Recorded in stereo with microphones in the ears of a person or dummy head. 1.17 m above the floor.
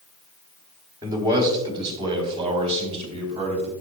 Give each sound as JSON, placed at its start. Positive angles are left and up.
{"t": 1.0, "sound": "a man speaking", "side_deg": -20, "distance_m": 2.5}